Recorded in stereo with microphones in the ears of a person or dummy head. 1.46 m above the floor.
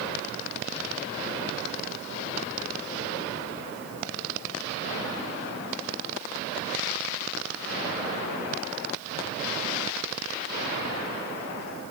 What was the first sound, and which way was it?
Only background noise.